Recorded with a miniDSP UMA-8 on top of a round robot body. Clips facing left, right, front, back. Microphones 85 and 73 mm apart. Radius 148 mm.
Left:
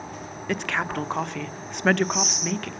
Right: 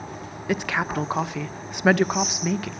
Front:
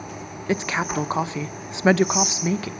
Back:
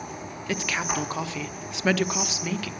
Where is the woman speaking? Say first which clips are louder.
Right 2 dB, front 4 dB; 15° right, 1.0 m.